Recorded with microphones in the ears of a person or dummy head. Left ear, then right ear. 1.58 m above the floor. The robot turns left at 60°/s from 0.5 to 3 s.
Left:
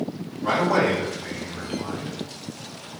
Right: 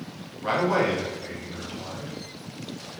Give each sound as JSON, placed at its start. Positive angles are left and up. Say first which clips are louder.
{"t": 0.4, "sound": "a man speaking", "louder": "left 2 dB", "azimuth_deg": -145, "distance_m": 0.8}